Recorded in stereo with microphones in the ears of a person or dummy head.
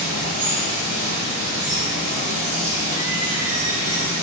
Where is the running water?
55° right (ahead or behind), 6.5 m.